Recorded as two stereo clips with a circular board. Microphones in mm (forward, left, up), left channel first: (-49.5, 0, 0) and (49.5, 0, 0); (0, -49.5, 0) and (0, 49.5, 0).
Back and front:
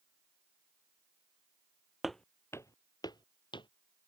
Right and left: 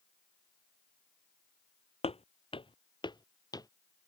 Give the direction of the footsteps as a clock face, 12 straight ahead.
3 o'clock.